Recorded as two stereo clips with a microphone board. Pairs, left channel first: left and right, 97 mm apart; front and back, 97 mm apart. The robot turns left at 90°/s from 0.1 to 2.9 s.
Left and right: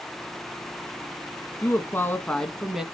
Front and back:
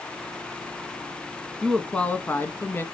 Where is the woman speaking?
95° left, 1.4 m; by 2.8 s 20° right, 1.4 m.